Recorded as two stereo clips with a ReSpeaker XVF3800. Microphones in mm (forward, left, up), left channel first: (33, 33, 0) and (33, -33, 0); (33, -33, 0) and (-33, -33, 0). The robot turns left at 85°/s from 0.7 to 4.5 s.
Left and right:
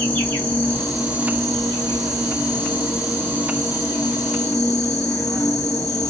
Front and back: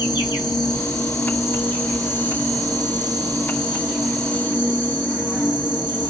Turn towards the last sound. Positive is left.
turn(degrees=55)